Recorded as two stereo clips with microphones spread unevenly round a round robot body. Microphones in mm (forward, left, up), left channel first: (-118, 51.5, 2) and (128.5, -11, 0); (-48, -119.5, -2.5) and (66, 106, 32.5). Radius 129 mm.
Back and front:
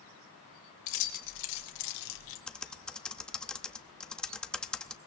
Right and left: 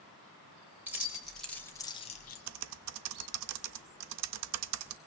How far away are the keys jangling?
About 2 m.